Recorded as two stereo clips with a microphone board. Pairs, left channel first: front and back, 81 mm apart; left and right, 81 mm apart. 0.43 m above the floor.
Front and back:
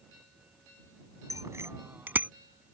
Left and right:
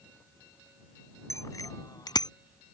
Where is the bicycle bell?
135° left; by 2.3 s 110° left.